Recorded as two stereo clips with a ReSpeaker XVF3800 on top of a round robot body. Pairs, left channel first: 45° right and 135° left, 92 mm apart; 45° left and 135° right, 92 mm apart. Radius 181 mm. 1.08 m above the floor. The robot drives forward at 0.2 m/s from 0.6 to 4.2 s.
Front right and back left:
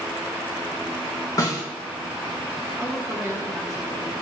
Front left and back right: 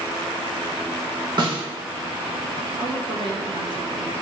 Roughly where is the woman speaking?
Behind.